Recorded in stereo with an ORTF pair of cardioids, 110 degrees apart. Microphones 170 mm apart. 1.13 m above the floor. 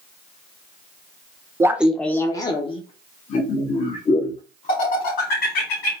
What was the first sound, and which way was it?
Laughter, 15° right.